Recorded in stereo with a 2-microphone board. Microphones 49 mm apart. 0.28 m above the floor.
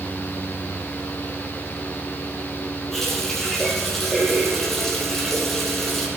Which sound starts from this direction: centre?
A running tap, at 2.9 s.